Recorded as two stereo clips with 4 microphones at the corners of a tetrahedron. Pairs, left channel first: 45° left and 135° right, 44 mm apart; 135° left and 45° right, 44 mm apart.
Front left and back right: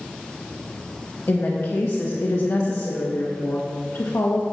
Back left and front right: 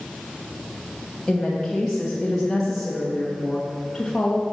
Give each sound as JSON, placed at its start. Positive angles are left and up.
{"t": 1.3, "sound": "a woman speaking", "azimuth_deg": 50, "distance_m": 1.7}